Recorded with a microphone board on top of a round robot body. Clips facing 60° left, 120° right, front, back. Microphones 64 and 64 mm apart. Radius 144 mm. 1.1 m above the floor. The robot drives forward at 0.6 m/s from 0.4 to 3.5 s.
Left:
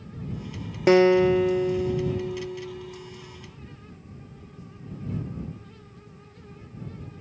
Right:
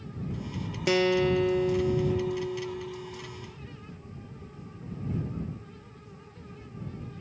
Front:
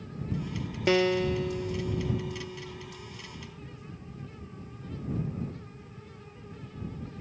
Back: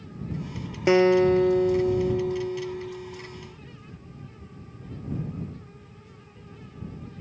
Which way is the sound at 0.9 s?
110° left.